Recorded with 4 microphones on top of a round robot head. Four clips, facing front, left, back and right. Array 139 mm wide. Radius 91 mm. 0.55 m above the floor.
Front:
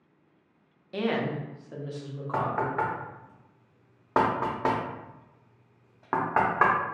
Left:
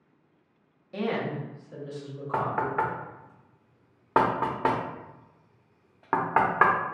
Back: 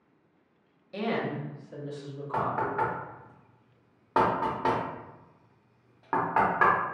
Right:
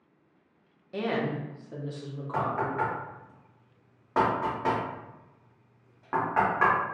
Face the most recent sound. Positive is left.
turn(degrees=65)